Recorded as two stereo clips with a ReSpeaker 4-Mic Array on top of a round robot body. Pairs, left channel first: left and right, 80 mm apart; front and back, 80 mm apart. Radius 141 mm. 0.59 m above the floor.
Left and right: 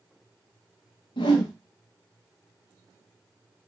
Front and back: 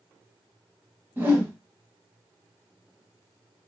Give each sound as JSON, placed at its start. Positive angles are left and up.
{"t": 1.2, "sound": "a whoosh", "azimuth_deg": 115, "distance_m": 0.6}